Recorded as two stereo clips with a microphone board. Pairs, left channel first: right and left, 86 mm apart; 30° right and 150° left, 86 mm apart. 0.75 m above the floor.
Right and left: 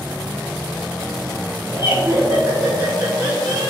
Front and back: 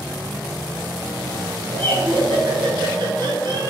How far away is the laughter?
About 2.5 m.